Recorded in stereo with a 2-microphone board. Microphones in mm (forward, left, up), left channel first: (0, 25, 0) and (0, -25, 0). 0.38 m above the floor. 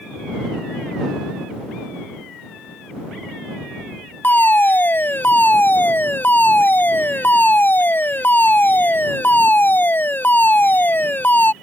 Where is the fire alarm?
40° left (ahead or behind).